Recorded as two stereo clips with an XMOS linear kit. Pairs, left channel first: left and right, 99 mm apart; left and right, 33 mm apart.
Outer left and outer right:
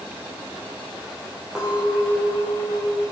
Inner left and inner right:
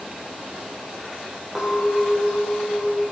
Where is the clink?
5° right (ahead or behind), 4 m.